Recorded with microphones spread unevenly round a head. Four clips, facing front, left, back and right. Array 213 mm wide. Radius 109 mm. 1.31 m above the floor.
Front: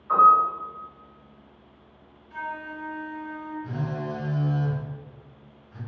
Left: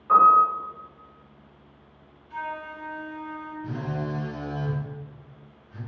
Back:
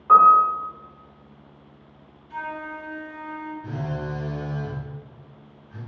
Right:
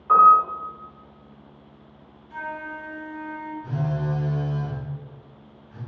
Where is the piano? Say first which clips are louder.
Right 2 dB, back 4 dB; 175° left, 0.9 m.